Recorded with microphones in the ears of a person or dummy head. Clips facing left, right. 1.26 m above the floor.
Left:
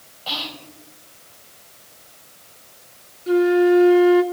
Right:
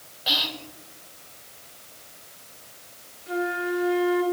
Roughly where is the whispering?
Right.